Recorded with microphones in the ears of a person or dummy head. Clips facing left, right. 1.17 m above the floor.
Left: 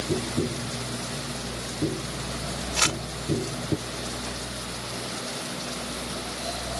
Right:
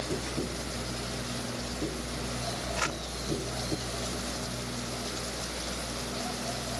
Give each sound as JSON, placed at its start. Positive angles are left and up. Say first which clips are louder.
{"t": 0.1, "sound": "tapping", "louder": "left 9 dB", "side_deg": 25}
{"t": 2.8, "sound": "crumpling", "louder": "left 4 dB", "side_deg": 55}